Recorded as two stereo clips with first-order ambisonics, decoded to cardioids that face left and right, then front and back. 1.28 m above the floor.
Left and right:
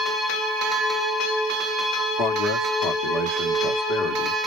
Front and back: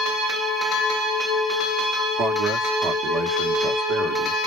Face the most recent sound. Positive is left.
turn(degrees=135)